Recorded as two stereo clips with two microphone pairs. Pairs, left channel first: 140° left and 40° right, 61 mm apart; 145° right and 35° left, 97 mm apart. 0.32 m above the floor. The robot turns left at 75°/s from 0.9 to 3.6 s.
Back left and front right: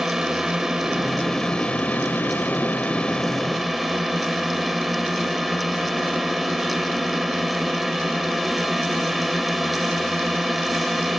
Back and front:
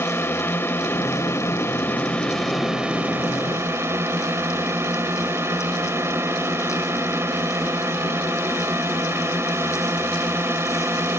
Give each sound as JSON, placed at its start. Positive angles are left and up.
{"t": 0.0, "sound": "a drone", "azimuth_deg": -115}